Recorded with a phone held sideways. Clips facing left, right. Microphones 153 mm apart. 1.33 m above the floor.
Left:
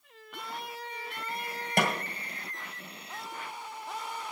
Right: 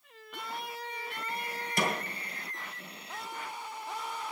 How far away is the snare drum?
About 2.0 m.